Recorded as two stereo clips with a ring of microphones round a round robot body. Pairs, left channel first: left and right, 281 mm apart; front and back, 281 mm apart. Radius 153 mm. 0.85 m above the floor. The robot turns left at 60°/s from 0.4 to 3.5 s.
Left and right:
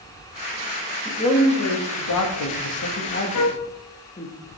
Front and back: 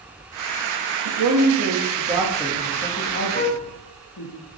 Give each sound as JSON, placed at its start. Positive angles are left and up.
{"t": 1.1, "sound": "a man speaking", "azimuth_deg": 170, "distance_m": 1.2}
{"t": 3.3, "sound": "a flute", "azimuth_deg": 60, "distance_m": 0.7}